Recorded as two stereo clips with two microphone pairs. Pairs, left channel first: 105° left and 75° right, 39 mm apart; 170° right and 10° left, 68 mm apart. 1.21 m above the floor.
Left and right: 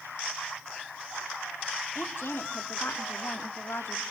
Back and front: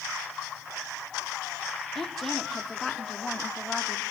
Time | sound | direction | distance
1.9 | a woman speaking | 105° left | 3 m